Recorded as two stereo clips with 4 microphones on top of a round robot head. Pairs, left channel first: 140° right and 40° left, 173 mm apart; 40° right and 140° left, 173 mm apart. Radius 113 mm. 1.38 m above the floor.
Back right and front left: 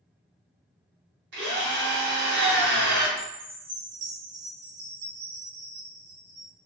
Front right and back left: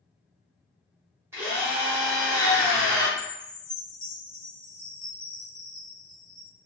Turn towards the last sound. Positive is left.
turn(degrees=45)